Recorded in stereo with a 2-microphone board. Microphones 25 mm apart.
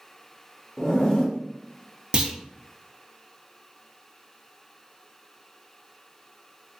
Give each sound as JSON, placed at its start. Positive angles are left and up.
{"t": 0.8, "sound": "a zipper", "side_deg": 35, "distance_m": 0.9}
{"t": 2.1, "sound": "a clunk", "side_deg": -35, "distance_m": 0.7}